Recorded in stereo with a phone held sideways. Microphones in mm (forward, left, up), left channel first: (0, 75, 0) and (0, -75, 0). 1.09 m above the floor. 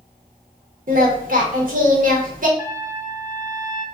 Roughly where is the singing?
Right.